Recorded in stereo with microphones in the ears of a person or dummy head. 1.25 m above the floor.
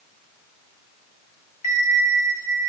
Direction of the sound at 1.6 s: 40° left (ahead or behind).